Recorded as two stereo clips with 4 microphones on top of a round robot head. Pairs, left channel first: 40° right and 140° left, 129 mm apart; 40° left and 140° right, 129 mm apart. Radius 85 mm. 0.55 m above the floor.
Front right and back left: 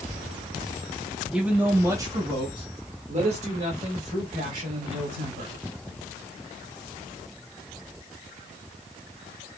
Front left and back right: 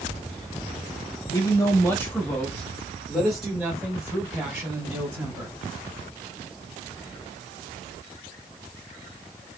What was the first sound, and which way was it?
A man speaking, 60° left.